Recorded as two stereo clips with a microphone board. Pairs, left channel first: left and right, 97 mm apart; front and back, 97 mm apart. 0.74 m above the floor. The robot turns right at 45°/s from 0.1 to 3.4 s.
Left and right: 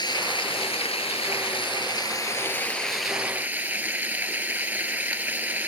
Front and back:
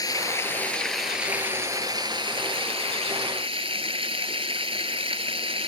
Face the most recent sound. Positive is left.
turn(degrees=-160)